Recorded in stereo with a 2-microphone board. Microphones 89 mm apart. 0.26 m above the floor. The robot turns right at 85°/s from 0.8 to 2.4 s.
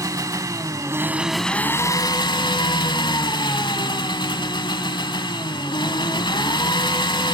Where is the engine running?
45° right, 0.9 m; by 7.3 s 90° left, 0.9 m.